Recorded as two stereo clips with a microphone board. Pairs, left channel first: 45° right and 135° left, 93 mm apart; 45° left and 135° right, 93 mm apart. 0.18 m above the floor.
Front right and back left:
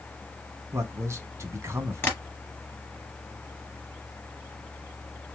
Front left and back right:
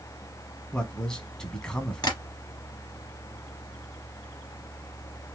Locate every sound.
0.7 s a man speaking: 120° left, 1.1 m
2.0 s tapping: 15° left, 2 m